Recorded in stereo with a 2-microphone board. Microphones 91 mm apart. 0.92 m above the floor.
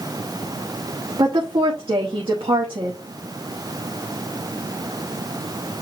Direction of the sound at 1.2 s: 80° right.